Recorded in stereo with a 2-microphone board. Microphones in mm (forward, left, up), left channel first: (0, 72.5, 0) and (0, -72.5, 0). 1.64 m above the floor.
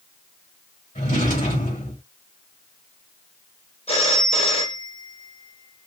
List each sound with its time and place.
0.9 s a drawer: 65° left (ahead or behind), 3 m
3.9 s a phone ringing: 45° left (ahead or behind), 1.1 m